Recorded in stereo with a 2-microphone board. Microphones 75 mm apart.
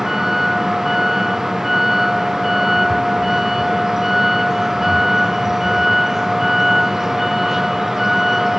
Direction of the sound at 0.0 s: 5° right (ahead or behind).